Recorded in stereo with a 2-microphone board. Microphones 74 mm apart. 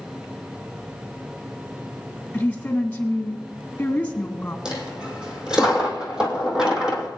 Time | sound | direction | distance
2.3 | a woman speaking | 25° left (ahead or behind) | 1.6 m
4.7 | a dropped coin | 10° right (ahead or behind) | 2 m